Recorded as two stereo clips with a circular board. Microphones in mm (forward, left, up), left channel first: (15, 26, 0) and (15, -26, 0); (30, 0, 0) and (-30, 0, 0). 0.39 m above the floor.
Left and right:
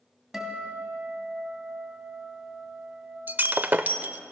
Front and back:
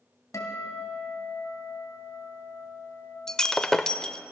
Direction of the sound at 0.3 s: 10° right.